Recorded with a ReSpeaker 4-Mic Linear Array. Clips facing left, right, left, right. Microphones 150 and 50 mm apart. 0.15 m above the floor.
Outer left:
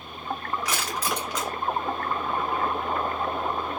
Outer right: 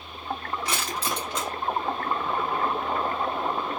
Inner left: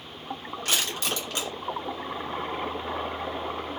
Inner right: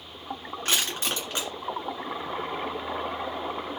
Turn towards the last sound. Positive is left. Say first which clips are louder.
# even, inner right 1 dB
turn(degrees=-30)  # may be behind; listen again after turning